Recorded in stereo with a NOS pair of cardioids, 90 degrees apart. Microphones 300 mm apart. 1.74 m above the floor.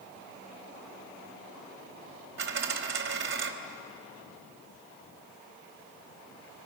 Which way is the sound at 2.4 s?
40° right.